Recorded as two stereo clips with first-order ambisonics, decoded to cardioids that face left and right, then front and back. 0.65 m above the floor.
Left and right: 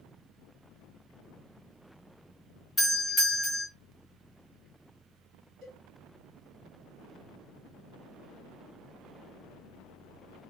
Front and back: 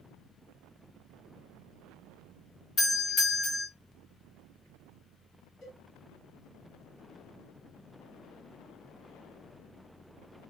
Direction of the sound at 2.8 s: 15° left.